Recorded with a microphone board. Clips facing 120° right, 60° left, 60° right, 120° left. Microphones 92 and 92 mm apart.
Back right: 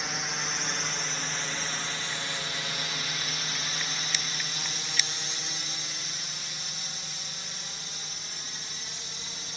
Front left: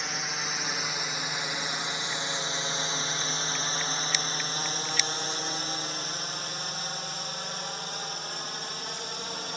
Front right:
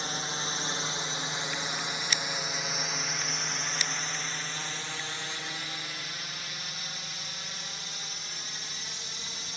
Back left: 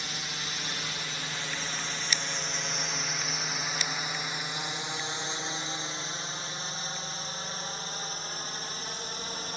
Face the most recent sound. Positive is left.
turn(degrees=85)